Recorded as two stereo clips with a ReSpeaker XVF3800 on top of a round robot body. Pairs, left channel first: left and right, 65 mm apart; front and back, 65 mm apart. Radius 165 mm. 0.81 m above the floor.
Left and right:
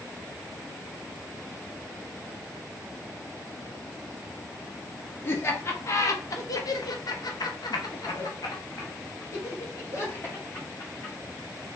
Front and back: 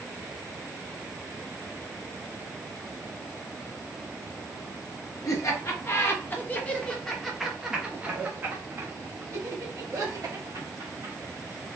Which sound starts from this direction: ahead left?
Laughter, at 5.2 s.